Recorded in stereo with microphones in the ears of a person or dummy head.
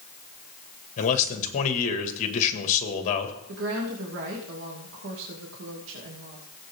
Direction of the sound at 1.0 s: 40° left (ahead or behind).